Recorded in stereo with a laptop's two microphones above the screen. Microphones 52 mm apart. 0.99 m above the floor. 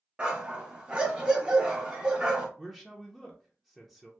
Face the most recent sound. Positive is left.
turn(degrees=-5)  # may be behind; listen again after turning